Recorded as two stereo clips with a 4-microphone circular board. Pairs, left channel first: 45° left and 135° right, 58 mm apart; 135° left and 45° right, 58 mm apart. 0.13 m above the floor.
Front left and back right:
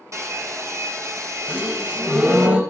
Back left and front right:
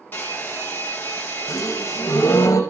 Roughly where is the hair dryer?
Behind.